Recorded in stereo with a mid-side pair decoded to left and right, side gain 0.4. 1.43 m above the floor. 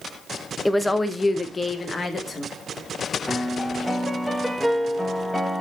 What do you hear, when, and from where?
0.7 s a woman speaking: 5° left, 0.8 m; by 2.5 s 35° left, 2.5 m
3.3 s a piano: 5° left, 1.4 m